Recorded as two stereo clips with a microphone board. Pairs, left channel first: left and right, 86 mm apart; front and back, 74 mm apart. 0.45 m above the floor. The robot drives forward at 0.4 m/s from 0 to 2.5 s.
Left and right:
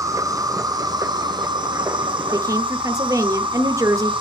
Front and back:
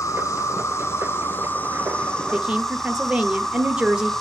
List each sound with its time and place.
0.0 s an insect: 40° right, 1.5 m; by 4.2 s 85° right, 1.0 m
2.3 s a woman speaking: 105° right, 1.2 m; by 4.1 s 110° right, 1.3 m